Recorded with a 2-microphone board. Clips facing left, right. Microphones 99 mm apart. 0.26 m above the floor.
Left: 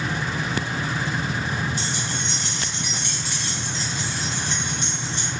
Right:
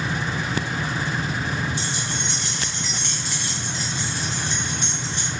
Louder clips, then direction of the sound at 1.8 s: Even; 45° left (ahead or behind).